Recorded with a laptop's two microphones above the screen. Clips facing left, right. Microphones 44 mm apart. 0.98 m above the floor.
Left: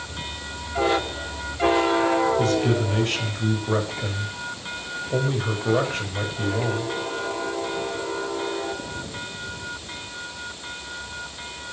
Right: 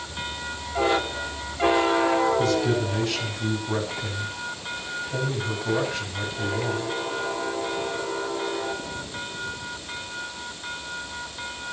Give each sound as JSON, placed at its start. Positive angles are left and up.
{"t": 2.4, "sound": "a man speaking", "side_deg": 55, "distance_m": 5.5}